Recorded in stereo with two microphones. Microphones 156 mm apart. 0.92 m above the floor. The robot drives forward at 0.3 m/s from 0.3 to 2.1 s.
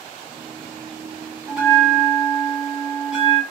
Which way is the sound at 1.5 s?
5° right (ahead or behind).